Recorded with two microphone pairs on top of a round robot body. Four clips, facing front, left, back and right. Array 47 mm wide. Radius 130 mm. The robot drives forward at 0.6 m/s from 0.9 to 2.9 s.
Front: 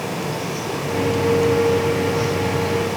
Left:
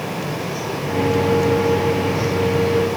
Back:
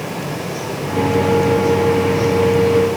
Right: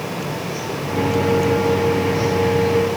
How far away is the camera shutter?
I don't hear a camera shutter.